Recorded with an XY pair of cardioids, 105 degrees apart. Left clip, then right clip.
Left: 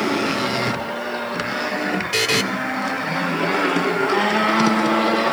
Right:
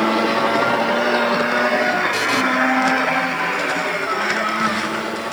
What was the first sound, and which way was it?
A buzzer, 40° left.